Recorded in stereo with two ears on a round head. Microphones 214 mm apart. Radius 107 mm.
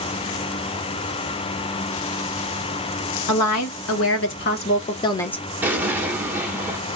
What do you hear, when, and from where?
3.3 s a woman speaking: 80° left, 1.1 m; by 5.5 s 5° left (ahead or behind), 0.7 m
5.6 s an explosion: 10° right (ahead or behind), 0.9 m